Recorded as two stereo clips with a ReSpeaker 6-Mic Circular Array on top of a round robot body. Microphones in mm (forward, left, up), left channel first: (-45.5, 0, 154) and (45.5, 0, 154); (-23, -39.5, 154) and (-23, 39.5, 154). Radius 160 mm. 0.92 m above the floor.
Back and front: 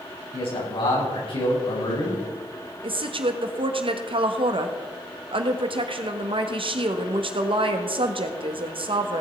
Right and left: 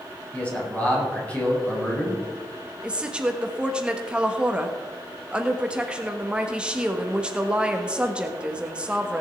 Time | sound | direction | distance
0.3 | a man speaking | 160° right | 6.5 m
2.8 | a woman speaking | 15° left | 1.6 m